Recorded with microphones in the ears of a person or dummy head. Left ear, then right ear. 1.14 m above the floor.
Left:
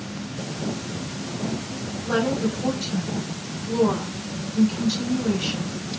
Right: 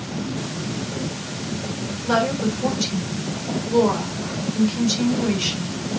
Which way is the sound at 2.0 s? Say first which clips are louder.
Right 3 dB; 85° right.